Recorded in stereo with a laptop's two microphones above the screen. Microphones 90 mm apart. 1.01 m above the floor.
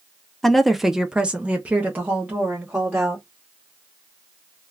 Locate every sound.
0.4 s a woman speaking: centre (ahead or behind), 0.6 m; by 3.2 s 20° right (ahead or behind), 1.2 m